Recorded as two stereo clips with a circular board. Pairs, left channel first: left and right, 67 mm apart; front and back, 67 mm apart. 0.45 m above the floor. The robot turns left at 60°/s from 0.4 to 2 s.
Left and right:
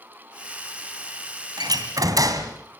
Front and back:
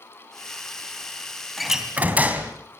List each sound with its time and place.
1.6 s a door slam: 90° right, 3 m; by 2.5 s 115° right, 3 m